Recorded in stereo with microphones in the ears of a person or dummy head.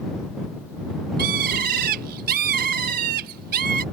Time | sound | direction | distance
1.2 | a bird | 50° right (ahead or behind) | ?